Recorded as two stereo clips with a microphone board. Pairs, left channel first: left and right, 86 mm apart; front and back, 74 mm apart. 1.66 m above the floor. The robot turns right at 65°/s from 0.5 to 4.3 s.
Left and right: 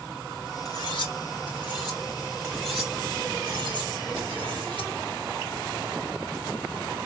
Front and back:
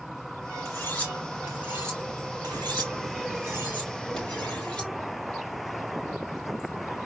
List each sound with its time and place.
0.7 s cutlery clinking: 50° left, 3.5 m; by 4.9 s 75° right, 3.5 m